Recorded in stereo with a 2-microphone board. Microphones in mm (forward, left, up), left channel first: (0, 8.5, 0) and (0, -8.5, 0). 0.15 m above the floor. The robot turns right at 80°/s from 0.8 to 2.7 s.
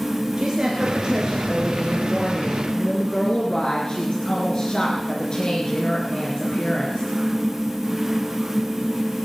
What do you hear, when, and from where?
0.4 s a woman speaking: 85° right, 2.5 m; by 7.1 s 70° left, 2.5 m